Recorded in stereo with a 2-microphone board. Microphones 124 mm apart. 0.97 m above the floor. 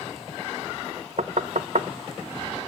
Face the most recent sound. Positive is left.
turn(degrees=-70)  # may be behind; listen again after turning